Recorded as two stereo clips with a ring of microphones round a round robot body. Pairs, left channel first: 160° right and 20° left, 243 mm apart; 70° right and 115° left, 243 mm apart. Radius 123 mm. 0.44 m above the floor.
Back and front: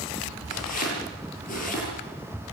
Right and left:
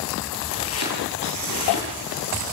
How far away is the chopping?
About 9 m.